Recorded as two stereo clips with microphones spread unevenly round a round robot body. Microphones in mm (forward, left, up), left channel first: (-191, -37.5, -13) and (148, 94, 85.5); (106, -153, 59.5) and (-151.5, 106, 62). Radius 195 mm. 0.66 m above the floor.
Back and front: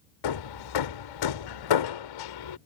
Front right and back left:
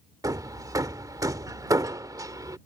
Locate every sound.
0.2 s hammering: 145° right